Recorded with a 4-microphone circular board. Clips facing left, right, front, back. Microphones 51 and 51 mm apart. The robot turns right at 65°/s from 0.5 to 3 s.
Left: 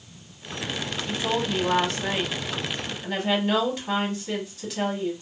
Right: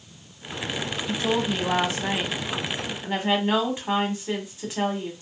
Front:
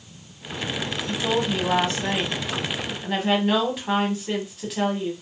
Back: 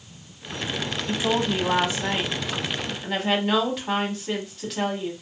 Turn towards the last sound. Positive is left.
turn(degrees=-80)